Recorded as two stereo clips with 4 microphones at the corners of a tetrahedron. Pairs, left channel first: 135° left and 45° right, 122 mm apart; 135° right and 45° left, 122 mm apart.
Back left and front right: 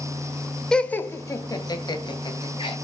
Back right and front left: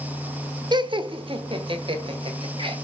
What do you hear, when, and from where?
0.7 s laughter: 55° left, 0.8 m; by 2.7 s 90° left, 2.5 m